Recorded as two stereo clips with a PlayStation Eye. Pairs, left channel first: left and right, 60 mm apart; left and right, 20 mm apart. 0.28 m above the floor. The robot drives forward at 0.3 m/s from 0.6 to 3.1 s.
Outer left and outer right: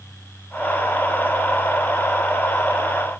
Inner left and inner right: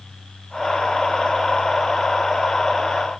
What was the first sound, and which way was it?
Only background noise.